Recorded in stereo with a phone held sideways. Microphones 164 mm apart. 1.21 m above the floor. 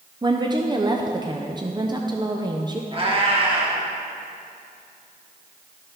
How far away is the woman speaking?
About 0.5 m.